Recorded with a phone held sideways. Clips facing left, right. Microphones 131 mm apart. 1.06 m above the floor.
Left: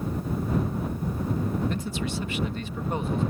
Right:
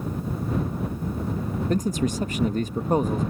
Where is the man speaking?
40° right (ahead or behind).